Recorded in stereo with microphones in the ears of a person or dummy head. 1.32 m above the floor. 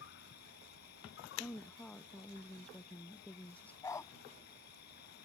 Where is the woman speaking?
10° left (ahead or behind).